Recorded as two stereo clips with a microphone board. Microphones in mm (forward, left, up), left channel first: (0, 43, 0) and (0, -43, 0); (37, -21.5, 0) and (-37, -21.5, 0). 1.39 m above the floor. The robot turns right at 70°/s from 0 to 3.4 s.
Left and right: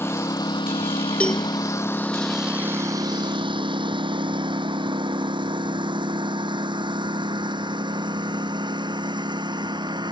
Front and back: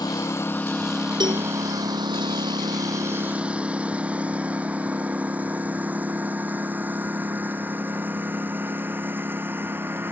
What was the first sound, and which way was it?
A lawn mower, 25° left.